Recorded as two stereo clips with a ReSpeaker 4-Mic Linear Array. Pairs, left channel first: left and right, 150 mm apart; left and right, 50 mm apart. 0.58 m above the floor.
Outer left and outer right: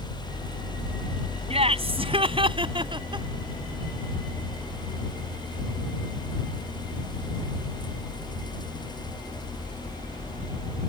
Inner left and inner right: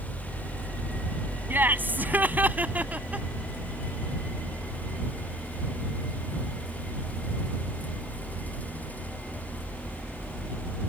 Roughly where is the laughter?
Right.